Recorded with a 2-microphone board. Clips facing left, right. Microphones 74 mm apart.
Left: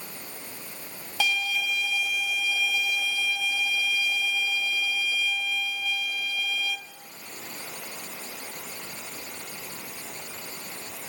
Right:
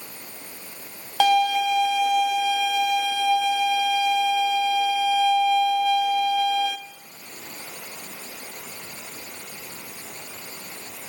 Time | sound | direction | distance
1.2 | a violin | 60° right (ahead or behind) | 0.6 m